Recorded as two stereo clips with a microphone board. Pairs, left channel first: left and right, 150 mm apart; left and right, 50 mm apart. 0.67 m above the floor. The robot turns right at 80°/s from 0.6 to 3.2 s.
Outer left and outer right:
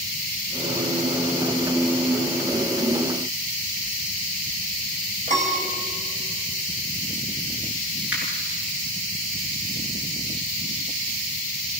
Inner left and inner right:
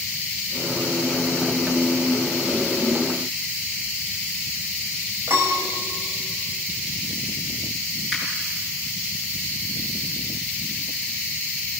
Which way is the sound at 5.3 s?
55° right (ahead or behind).